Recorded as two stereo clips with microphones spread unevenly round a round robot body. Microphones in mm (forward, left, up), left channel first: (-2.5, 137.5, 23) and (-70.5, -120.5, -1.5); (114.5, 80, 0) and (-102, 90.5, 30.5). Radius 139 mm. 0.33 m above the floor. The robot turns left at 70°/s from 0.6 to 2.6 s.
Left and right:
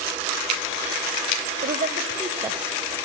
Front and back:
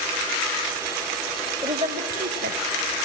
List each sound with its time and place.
1.6 s a woman speaking: 110° right, 1.7 m; by 3.0 s straight behind, 1.7 m